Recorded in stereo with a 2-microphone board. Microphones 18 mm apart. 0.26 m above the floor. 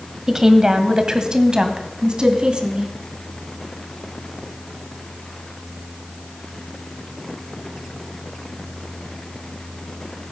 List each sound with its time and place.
0.3 s a woman speaking: 30° right (ahead or behind), 1.5 m; by 2.9 s 55° right (ahead or behind), 2.5 m